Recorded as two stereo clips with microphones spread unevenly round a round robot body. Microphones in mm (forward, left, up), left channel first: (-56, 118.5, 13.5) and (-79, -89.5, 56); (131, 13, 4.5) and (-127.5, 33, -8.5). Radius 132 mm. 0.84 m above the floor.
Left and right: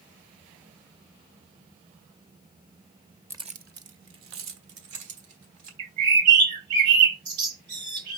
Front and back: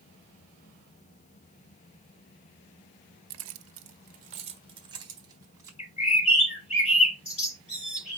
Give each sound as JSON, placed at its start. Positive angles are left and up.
{"t": 3.3, "sound": "keys jangling", "azimuth_deg": -175, "distance_m": 0.8}
{"t": 5.8, "sound": "a bird", "azimuth_deg": -70, "distance_m": 5.5}